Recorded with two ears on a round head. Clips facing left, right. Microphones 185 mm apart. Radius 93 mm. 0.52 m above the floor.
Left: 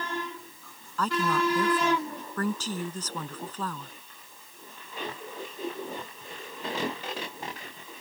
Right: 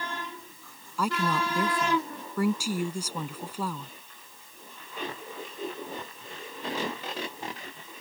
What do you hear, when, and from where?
1.0 s a woman speaking: 10° right (ahead or behind)